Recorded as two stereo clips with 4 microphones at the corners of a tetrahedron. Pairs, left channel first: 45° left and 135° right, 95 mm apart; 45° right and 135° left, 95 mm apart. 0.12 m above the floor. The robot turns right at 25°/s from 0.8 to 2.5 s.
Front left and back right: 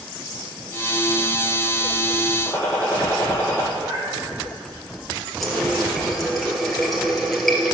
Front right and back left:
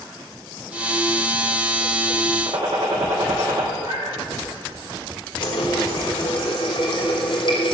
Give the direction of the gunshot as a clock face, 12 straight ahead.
8 o'clock.